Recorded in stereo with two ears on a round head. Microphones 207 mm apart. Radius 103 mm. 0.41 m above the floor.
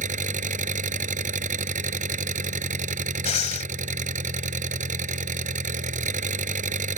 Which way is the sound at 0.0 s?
35° right (ahead or behind).